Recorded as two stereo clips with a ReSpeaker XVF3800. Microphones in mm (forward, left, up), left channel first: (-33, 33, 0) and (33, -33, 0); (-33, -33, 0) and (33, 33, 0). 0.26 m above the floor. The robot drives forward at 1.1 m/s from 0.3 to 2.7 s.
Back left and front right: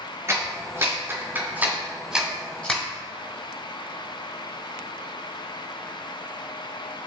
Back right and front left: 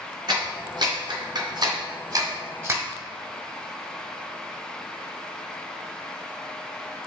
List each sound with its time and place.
0.3 s a clap: 10° left, 3 m; by 2.8 s 70° left, 1.2 m